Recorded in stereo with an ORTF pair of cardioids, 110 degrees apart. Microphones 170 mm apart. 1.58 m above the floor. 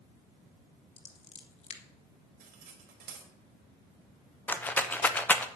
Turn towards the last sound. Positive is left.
turn(degrees=10)